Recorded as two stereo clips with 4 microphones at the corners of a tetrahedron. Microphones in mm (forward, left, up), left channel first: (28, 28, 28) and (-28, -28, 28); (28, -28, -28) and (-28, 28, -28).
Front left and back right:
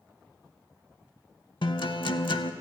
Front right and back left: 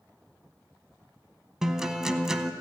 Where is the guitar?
50° left, 0.5 m.